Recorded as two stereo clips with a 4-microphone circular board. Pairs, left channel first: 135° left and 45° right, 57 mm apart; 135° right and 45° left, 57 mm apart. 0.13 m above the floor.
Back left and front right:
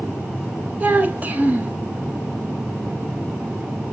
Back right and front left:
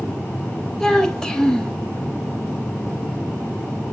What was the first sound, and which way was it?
A child speaking, 65° right.